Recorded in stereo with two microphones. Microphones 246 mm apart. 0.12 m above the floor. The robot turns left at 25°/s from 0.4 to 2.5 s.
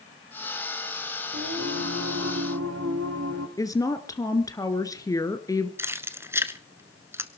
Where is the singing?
60° right (ahead or behind), 3 m; by 3.5 s 80° right, 3 m.